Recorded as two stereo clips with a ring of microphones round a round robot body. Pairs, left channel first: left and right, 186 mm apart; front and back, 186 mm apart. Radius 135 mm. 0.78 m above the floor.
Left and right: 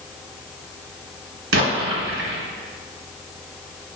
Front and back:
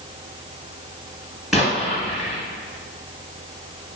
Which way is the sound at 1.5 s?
90° right.